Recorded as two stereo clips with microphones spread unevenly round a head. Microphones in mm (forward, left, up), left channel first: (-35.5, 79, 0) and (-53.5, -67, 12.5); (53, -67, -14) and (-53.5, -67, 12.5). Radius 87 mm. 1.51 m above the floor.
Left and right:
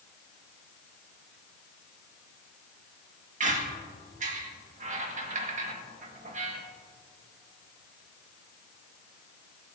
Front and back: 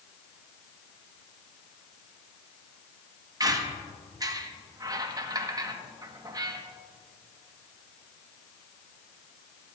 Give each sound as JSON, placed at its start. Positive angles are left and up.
{"t": 3.4, "sound": "a squeak", "azimuth_deg": -130, "distance_m": 1.7}